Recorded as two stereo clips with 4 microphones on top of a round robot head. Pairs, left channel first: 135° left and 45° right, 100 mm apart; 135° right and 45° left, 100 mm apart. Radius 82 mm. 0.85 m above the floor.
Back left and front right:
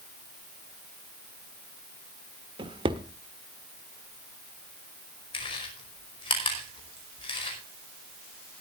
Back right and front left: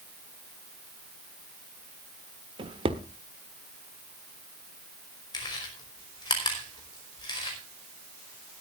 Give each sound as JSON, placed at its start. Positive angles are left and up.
{"t": 2.6, "sound": "a drawer", "azimuth_deg": 0, "distance_m": 1.3}
{"t": 5.3, "sound": "chewing", "azimuth_deg": 175, "distance_m": 5.0}